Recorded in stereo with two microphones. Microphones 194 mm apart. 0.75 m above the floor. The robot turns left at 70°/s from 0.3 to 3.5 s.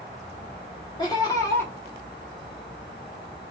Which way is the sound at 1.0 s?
20° left (ahead or behind).